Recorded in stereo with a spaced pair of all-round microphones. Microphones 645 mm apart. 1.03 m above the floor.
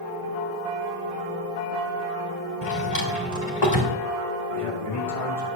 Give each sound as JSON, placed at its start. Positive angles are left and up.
{"t": 2.6, "sound": "a drawer", "side_deg": 80, "distance_m": 2.5}
{"t": 4.5, "sound": "a man speaking", "side_deg": 55, "distance_m": 6.5}